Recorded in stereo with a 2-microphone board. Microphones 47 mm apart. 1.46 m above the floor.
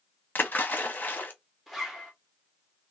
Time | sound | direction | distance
0.3 | a splash | 40° left (ahead or behind) | 0.8 m
1.7 | a zipper | centre (ahead or behind) | 1.1 m